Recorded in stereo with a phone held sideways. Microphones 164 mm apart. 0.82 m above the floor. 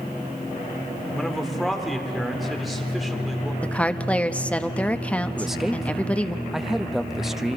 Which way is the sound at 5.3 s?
5° right (ahead or behind).